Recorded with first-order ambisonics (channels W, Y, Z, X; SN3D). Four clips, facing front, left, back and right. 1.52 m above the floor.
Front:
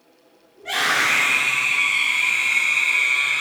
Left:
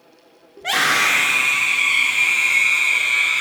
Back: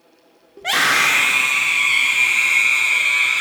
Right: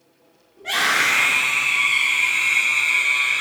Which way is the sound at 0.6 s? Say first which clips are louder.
Left 2 dB, back 4 dB; 145° left.